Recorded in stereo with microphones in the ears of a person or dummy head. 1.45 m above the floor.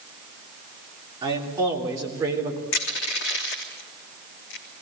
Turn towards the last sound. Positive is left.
turn(degrees=55)  # may be behind; listen again after turning